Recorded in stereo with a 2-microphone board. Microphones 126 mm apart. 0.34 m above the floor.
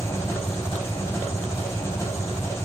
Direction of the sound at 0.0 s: 20° left (ahead or behind).